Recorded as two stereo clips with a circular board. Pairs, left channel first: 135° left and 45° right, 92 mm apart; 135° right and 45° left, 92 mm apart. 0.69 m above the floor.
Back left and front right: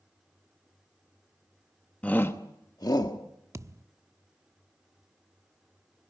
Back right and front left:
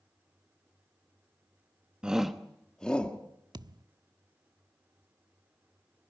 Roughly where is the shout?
Left.